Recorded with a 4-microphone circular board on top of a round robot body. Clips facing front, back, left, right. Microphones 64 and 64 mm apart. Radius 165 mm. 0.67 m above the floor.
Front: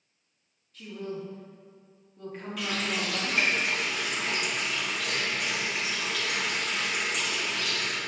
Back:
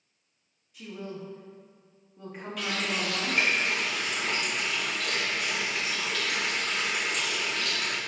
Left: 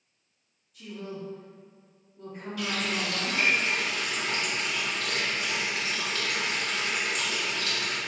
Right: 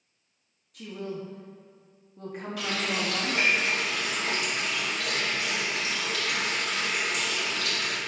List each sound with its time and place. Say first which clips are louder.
0.7 s a woman speaking: front 2 dB, right 3 dB; 105° right, 1.4 m
2.6 s a running tap: even, even; 90° right, 2.5 m